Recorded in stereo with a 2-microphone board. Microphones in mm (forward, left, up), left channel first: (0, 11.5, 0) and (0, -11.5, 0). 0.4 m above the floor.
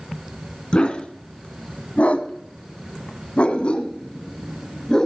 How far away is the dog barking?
About 1.7 m.